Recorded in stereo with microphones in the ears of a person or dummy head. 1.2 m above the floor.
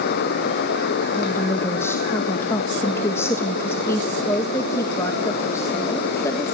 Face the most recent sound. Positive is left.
turn(degrees=15)  # may be behind; listen again after turning